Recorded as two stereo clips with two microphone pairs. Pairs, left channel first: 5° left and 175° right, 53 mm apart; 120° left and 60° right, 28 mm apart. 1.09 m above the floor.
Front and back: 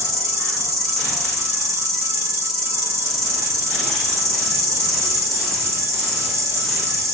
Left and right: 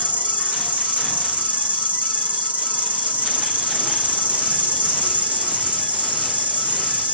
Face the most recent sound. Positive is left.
turn(degrees=-80)